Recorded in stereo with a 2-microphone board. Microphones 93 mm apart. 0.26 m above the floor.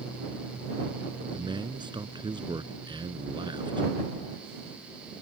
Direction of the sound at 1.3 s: 55° right (ahead or behind).